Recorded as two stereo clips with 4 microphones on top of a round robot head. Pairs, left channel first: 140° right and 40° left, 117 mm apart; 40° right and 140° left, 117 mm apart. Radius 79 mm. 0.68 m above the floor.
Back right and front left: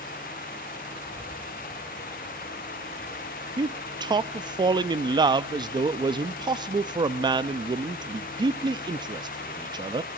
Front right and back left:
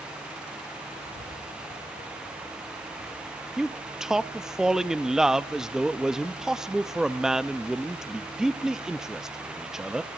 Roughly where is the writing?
Right.